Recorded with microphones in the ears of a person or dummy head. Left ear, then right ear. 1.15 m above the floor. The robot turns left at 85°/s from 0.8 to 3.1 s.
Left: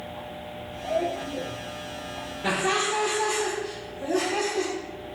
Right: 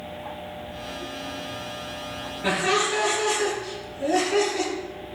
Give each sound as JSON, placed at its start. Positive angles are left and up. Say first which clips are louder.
{"t": 2.4, "sound": "laughter", "louder": "right 2 dB", "azimuth_deg": -20, "distance_m": 1.1}